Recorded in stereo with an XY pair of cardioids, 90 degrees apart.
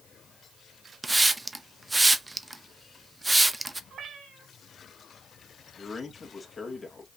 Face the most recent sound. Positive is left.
turn(degrees=35)